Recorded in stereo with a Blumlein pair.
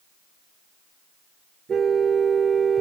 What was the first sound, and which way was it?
A car horn, 20° right.